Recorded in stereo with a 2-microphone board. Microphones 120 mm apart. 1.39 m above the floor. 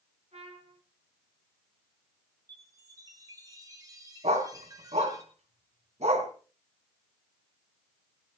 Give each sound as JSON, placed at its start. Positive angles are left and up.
{"t": 0.3, "sound": "a trumpet", "side_deg": -65, "distance_m": 3.0}
{"t": 2.5, "sound": "a chime", "side_deg": -30, "distance_m": 2.5}
{"t": 4.2, "sound": "a dog barking", "side_deg": -65, "distance_m": 3.0}